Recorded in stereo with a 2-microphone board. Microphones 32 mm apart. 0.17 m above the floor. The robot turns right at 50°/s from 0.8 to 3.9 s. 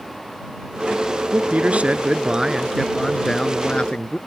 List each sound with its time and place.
1.3 s a man speaking: 85° right; by 4.2 s 45° left